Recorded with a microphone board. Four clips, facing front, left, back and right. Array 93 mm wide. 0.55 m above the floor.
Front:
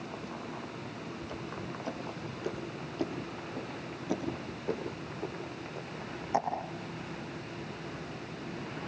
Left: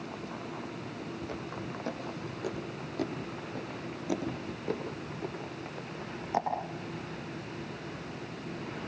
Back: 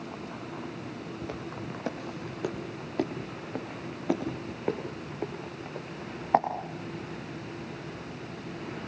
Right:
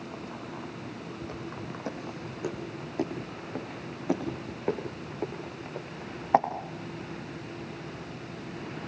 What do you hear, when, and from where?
1.2 s footsteps: straight behind, 7.5 m; by 6.4 s 130° right, 10.5 m